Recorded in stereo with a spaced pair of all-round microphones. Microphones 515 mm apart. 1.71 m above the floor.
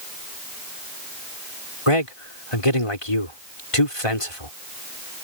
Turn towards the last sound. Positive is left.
turn(degrees=85)